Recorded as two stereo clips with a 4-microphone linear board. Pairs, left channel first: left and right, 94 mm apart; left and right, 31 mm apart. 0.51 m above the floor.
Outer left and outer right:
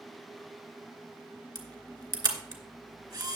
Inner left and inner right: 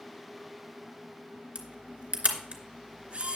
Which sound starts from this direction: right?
A camera shutter, at 1.6 s.